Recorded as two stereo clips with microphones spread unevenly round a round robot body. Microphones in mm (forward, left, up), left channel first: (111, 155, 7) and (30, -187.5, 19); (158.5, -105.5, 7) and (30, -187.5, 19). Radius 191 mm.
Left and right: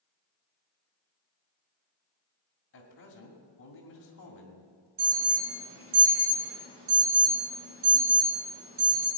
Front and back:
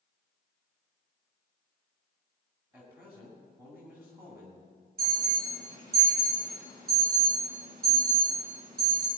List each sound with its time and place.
2.7 s a man speaking: 130° left, 2.5 m
5.0 s an alarm: 160° right, 4 m